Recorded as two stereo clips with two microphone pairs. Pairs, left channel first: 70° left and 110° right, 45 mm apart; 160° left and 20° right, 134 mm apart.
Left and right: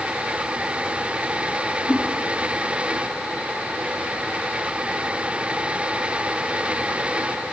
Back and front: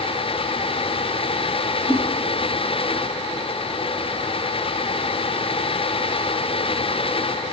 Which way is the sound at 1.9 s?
40° left.